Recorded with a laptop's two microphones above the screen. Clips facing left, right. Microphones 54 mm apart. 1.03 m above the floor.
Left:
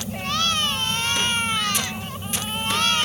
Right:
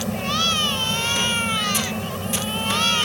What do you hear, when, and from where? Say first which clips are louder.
0.0 s a fan: right 2 dB; 75° right (ahead or behind)